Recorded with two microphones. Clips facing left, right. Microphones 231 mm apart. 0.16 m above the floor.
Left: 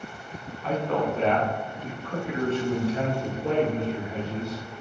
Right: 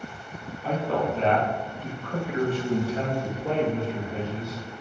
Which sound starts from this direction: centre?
A man speaking, at 0.6 s.